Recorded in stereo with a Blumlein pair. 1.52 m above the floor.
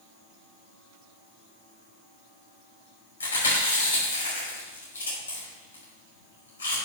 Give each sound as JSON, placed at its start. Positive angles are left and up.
{"t": 3.2, "sound": "chewing", "azimuth_deg": 70, "distance_m": 5.0}